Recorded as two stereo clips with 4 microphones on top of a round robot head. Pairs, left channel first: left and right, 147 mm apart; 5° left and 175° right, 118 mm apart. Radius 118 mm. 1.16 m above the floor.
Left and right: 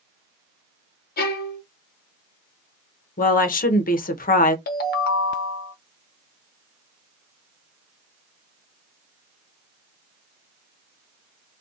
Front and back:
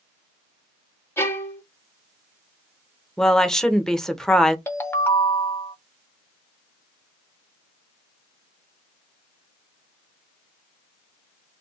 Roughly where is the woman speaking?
Left.